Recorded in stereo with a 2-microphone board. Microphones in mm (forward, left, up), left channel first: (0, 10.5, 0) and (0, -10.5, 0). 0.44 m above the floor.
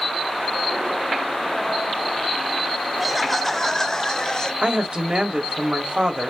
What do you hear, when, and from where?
3.0 s laughter: 5° right (ahead or behind), 0.8 m; by 4.5 s 40° left (ahead or behind), 1.8 m
4.6 s a woman speaking: 60° right (ahead or behind), 2 m